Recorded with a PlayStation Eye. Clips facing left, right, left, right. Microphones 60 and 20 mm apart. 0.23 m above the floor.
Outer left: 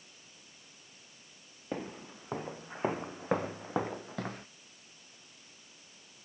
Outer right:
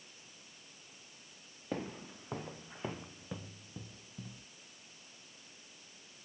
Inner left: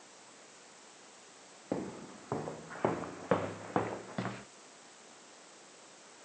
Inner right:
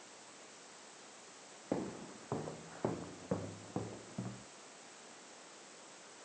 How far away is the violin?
I don't hear a violin.